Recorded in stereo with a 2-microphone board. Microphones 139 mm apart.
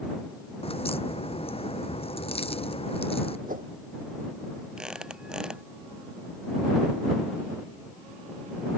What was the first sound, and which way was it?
A crack, 45° left (ahead or behind).